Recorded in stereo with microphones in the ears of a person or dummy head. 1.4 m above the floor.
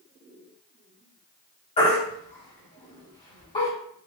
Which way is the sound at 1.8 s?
30° left (ahead or behind).